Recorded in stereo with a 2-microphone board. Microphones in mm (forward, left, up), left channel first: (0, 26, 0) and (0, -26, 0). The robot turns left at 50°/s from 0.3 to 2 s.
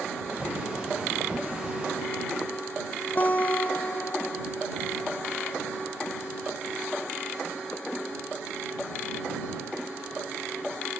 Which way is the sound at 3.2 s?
40° left (ahead or behind).